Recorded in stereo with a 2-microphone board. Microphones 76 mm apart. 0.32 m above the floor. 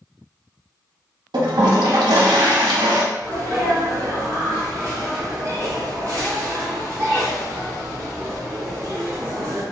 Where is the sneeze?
45° right (ahead or behind), 1.6 m.